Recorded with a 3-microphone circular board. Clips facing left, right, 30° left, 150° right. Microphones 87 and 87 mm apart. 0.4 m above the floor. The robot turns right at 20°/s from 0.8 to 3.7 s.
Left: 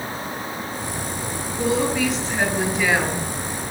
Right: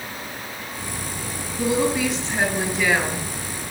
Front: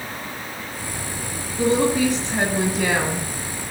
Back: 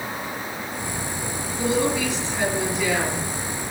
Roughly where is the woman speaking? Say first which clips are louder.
Even, front 4 dB; ahead.